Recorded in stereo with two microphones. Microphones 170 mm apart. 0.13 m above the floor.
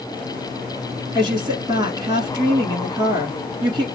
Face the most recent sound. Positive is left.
turn(degrees=-25)  # may be behind; listen again after turning